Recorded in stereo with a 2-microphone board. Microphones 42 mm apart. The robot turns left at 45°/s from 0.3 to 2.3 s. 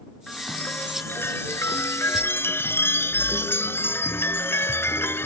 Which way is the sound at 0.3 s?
160° left.